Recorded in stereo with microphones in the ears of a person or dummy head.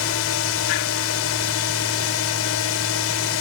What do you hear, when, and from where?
0.0 s a drone: 70° left (ahead or behind)